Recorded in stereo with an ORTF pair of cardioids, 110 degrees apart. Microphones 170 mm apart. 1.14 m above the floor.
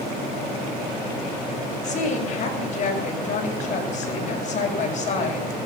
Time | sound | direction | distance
1.8 | a woman speaking | 45° left | 6 m